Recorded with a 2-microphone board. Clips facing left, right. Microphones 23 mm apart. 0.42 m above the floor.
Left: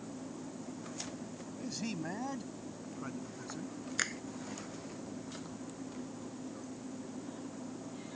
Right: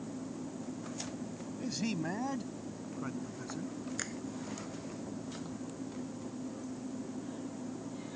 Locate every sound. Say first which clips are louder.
1.6 s a man speaking: right 4 dB; 15° right (ahead or behind); by 3.7 s centre (ahead or behind)
4.0 s a finger snap: left 4 dB; 35° left (ahead or behind)